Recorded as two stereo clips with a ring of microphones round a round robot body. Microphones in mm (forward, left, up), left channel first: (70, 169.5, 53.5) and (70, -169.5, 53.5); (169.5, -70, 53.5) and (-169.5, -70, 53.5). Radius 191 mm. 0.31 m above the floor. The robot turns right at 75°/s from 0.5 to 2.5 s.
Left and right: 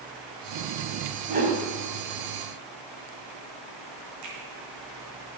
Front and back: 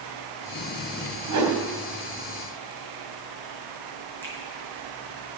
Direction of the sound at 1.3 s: 160° right.